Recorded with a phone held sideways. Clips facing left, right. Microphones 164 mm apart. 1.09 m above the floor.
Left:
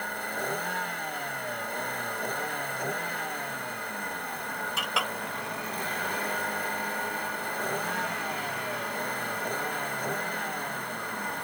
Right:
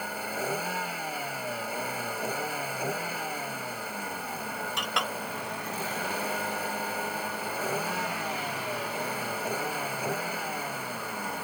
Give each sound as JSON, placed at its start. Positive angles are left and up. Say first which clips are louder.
{"t": 0.0, "sound": "a vehicle", "louder": "right 1 dB", "side_deg": -5}
{"t": 4.8, "sound": "a clink", "louder": "even", "side_deg": 5}